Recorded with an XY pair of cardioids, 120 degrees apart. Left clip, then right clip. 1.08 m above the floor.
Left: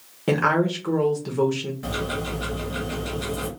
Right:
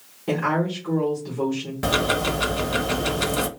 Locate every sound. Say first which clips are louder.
0.3 s a woman speaking: left 3 dB; 55° left, 1.0 m
1.8 s ticking: right 10 dB; 65° right, 0.7 m